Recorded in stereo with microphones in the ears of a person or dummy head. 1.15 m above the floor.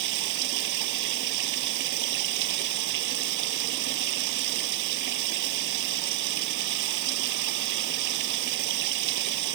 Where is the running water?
65° right (ahead or behind).